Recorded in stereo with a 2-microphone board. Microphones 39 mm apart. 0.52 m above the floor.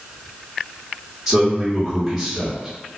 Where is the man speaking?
10° right (ahead or behind), 1.2 m.